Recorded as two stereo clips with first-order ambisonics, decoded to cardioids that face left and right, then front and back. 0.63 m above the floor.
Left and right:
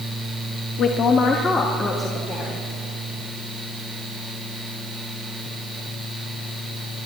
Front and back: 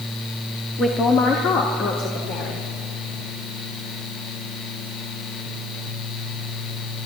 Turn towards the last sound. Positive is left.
turn(degrees=-10)